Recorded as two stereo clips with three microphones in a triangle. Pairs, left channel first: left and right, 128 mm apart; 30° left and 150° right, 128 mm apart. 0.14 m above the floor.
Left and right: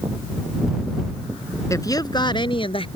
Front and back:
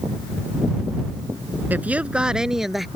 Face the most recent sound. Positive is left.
turn(degrees=120)